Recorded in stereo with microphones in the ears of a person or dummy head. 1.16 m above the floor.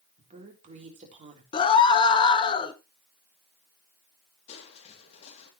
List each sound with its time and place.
0.2 s a woman speaking: 40° right (ahead or behind), 3.5 m
1.5 s a scream: 30° left (ahead or behind), 1.1 m
4.5 s crushing: 35° left (ahead or behind), 2.5 m